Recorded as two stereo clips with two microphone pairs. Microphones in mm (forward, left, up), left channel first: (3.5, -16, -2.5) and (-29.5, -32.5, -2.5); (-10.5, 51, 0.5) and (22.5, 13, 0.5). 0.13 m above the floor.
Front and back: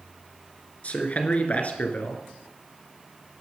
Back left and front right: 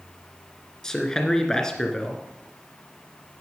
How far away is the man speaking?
About 2.0 m.